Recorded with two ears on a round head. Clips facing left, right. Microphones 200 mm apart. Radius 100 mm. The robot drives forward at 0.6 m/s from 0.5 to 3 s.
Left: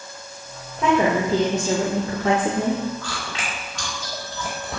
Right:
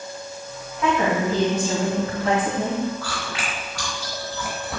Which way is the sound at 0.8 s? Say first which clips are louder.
Left 2 dB; 25° left (ahead or behind).